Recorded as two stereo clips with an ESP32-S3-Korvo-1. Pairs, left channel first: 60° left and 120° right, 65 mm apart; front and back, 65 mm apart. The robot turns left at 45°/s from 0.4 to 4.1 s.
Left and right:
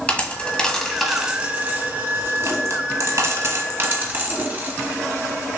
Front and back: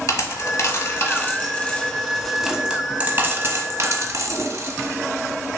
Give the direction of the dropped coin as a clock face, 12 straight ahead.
12 o'clock.